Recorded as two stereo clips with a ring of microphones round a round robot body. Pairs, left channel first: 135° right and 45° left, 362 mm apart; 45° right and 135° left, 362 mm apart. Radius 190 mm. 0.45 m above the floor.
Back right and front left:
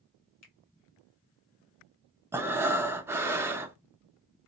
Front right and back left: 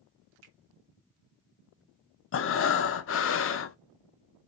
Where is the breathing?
35° right, 0.7 m.